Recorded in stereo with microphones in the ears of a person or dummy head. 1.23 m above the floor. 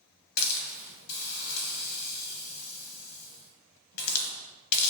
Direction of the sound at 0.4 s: 55° left (ahead or behind).